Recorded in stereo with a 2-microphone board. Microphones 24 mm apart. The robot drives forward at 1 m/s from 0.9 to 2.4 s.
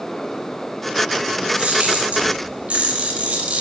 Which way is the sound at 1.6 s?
80° right.